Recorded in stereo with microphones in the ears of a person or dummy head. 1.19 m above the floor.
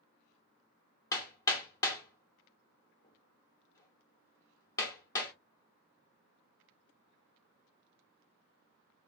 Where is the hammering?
20° left (ahead or behind), 1.5 m.